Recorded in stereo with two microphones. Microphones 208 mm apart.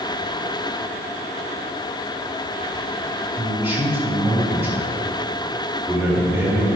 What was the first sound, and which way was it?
A man speaking, 10° right (ahead or behind).